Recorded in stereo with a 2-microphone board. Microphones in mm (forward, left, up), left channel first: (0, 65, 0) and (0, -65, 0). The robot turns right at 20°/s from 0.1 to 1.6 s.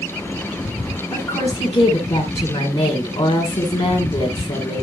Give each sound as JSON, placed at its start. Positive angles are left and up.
{"t": 1.1, "sound": "a woman speaking", "side_deg": 35, "distance_m": 1.9}